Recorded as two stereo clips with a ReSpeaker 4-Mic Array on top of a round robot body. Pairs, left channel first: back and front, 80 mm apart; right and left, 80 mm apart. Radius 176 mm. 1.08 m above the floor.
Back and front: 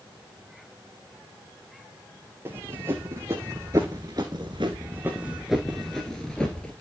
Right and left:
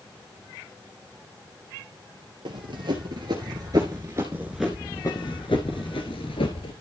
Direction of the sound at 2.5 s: 60° left.